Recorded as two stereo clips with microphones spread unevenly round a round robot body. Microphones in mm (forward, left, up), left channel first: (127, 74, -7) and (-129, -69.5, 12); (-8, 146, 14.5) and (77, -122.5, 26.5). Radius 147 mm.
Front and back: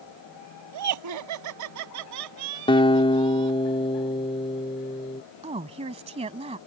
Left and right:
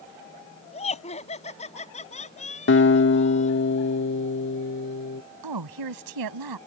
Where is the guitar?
90° left.